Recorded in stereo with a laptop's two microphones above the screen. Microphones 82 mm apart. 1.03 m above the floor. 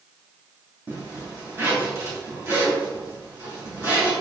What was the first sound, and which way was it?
A zipper, 35° right (ahead or behind).